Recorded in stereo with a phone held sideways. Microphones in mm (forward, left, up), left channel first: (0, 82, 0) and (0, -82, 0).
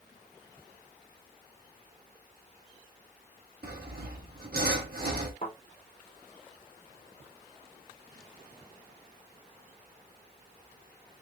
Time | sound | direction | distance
3.6 | sawing | 70° right (ahead or behind) | 1.3 m
5.4 | a thud | 60° left (ahead or behind) | 2.5 m